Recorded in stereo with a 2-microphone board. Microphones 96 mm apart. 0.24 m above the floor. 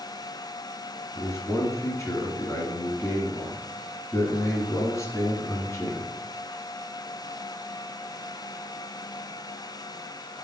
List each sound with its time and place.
1.1 s a man speaking: 30° left (ahead or behind), 2.0 m